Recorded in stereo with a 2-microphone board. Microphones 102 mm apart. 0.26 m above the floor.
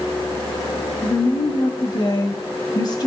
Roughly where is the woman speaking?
Left.